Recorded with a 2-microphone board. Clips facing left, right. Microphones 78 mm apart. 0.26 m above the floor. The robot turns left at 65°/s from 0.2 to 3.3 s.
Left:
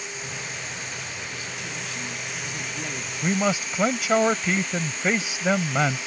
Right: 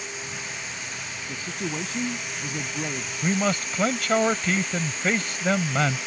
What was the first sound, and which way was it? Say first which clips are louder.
A man speaking: right 4 dB; 55° right.